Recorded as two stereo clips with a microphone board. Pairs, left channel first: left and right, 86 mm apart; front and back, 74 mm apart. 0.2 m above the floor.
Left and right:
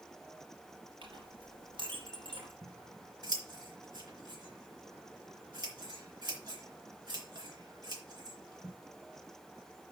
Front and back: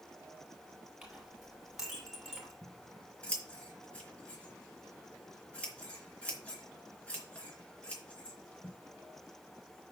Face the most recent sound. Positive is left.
turn(degrees=-70)